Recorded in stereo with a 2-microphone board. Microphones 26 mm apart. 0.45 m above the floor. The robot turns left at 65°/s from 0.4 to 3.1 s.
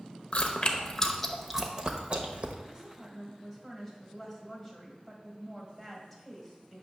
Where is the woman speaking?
20° right (ahead or behind), 2 m; by 6.8 s 5° left (ahead or behind), 2 m.